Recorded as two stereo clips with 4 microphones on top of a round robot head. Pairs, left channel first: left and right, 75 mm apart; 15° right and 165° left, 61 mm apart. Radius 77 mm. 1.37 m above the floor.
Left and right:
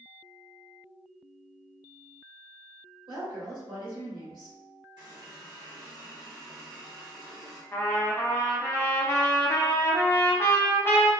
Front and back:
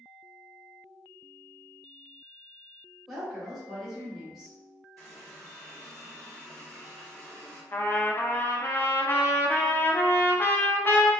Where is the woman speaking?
105° right, 1.6 m.